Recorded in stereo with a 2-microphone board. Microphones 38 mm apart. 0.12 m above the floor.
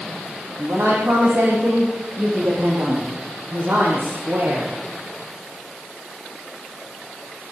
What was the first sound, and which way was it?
A woman speaking, 70° right (ahead or behind).